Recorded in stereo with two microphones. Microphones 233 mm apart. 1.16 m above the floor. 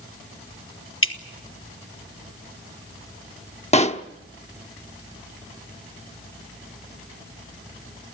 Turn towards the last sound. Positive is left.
turn(degrees=30)  # may be behind; listen again after turning